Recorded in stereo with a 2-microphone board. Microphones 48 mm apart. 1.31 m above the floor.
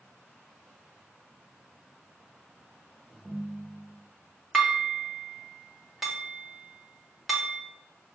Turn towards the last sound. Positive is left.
turn(degrees=0)  # may be behind; listen again after turning